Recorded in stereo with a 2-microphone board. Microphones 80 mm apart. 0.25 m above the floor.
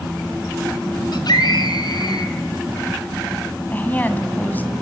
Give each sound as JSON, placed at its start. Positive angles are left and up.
{"t": 1.1, "sound": "a scream", "side_deg": 60, "distance_m": 3.0}
{"t": 3.7, "sound": "a woman speaking", "side_deg": 20, "distance_m": 1.8}